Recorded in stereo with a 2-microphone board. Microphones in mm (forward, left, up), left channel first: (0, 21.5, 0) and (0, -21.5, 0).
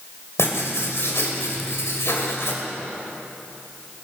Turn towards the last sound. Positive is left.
turn(degrees=75)  # may be behind; listen again after turning